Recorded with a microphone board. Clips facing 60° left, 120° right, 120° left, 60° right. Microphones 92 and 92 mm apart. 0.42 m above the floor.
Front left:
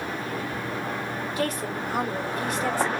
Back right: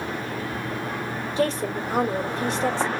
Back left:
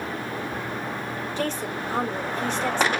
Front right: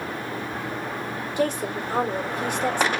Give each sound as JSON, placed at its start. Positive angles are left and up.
{"t": 1.4, "sound": "a woman speaking", "azimuth_deg": -120, "distance_m": 1.3}